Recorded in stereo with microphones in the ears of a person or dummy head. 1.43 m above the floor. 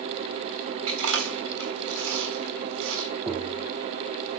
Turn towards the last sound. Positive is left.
turn(degrees=-10)  # may be behind; listen again after turning